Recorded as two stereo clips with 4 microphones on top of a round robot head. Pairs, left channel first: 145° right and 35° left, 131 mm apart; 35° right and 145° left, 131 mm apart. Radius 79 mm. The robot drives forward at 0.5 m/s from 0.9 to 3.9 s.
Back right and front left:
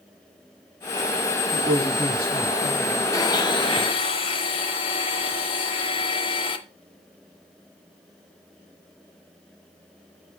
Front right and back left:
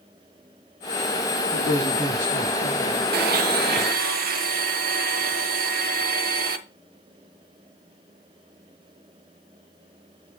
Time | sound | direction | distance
1.5 | a man speaking | 140° left | 4 m
3.1 | a blender | 145° left | 0.5 m